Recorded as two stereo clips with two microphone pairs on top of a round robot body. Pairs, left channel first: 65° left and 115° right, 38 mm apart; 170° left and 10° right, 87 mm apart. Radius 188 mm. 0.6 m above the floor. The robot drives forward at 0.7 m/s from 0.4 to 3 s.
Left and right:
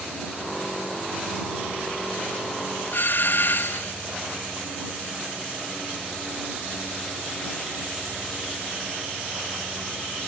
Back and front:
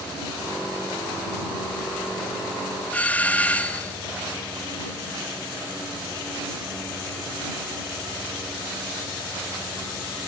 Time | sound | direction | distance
2.9 | a doorbell | 95° left | ?